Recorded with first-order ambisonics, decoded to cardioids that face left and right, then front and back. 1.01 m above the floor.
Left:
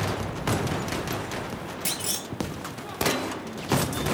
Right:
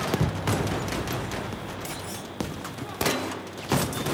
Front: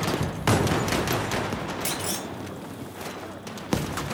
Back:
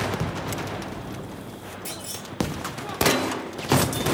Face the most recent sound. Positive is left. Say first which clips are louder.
# left 5 dB, front 3 dB
turn(degrees=65)